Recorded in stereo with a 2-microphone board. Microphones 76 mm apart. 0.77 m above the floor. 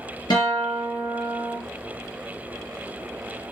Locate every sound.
0.3 s a guitar: 70° left (ahead or behind), 3 m